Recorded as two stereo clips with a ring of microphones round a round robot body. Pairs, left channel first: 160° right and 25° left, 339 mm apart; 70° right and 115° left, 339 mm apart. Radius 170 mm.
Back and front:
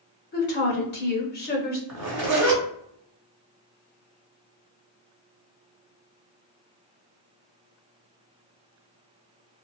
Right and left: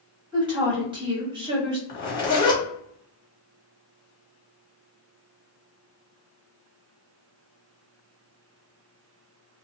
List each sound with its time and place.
0.3 s a woman speaking: 175° left, 0.9 m
1.9 s a zipper: 15° right, 1.4 m